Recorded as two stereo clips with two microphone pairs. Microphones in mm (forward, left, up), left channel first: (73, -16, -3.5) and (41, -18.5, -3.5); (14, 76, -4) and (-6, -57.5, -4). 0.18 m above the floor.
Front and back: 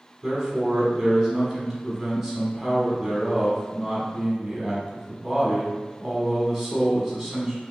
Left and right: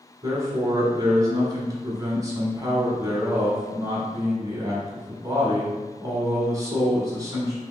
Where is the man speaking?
85° right, 1.1 m.